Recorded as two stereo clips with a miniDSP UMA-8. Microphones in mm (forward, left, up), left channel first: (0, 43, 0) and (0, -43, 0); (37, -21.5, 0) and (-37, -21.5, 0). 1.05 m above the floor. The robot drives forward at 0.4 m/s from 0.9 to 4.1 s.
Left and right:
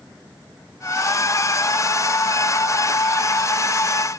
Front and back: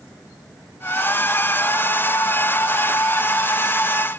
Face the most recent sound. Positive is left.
No sound to turn to.